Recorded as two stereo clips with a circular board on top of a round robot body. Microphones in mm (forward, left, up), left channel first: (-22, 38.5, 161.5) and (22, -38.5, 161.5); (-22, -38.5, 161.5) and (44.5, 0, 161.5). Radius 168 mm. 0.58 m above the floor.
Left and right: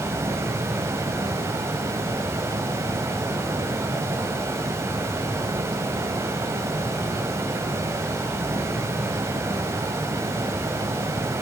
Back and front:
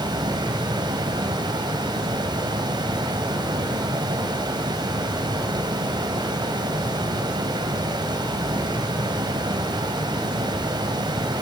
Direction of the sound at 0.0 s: Straight ahead.